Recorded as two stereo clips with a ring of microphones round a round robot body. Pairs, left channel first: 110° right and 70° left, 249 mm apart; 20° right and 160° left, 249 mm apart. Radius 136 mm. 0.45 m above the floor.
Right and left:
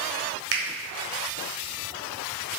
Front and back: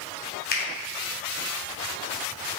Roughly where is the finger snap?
Ahead left.